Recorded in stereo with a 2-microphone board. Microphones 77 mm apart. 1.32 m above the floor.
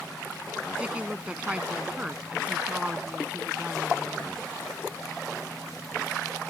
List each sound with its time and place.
0.8 s a woman speaking: 15° right (ahead or behind)